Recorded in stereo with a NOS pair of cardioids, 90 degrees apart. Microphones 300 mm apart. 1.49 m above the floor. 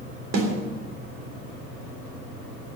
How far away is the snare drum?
About 3.5 m.